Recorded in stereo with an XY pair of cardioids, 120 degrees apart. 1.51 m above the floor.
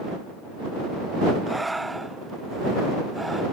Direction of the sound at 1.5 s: 10° right.